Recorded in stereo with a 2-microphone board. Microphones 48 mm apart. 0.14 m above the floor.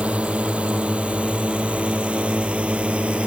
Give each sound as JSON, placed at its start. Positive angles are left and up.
{"t": 0.0, "sound": "a drone", "side_deg": -25}